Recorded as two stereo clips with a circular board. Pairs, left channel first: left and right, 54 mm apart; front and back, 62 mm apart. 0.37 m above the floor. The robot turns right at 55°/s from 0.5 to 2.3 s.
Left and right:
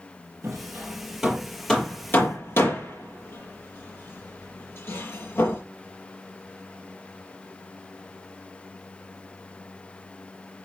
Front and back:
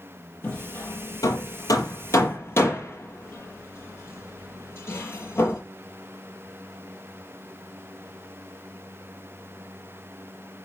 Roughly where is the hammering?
Ahead right.